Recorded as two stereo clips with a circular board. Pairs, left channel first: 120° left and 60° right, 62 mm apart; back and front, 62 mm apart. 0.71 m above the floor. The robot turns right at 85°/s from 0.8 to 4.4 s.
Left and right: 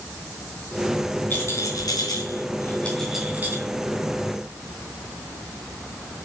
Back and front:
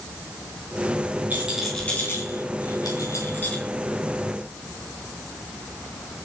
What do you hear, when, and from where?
1.3 s a rattle: 60° left, 3.5 m; by 3.6 s 100° right, 3.5 m